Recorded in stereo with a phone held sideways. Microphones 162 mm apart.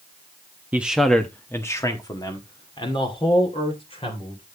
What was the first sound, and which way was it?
A man speaking, 10° right (ahead or behind).